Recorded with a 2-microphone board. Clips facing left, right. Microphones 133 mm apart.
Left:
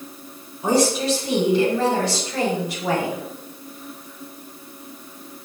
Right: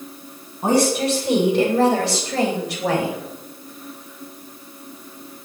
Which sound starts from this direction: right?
A woman speaking, at 0.6 s.